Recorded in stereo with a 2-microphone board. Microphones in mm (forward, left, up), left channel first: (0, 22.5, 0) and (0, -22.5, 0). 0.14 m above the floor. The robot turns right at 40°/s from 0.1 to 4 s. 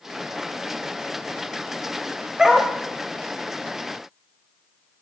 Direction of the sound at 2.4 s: 10° right (ahead or behind).